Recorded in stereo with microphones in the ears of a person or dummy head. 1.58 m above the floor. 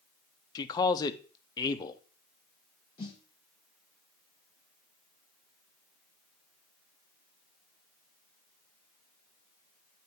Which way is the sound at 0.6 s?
25° left (ahead or behind).